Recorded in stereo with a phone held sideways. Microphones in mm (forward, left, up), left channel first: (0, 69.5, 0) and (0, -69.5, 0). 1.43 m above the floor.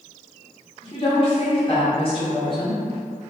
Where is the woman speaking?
40° left (ahead or behind), 0.9 m.